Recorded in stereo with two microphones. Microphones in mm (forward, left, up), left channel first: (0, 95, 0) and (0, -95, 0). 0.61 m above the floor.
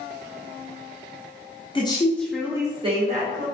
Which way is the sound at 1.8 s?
25° left (ahead or behind).